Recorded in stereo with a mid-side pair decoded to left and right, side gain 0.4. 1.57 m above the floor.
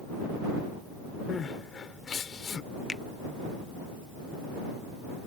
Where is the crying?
50° left.